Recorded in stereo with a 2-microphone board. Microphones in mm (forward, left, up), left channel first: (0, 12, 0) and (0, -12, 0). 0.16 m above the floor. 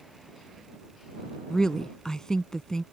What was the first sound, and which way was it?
A woman speaking, 30° left (ahead or behind).